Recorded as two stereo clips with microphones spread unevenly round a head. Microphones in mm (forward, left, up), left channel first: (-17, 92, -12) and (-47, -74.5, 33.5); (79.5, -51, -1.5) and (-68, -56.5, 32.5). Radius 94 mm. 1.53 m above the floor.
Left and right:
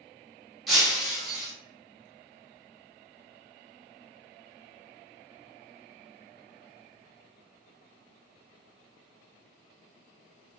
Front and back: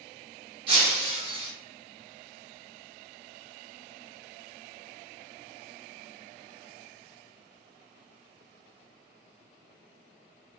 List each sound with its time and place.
0.7 s breaking glass: 175° right, 1.2 m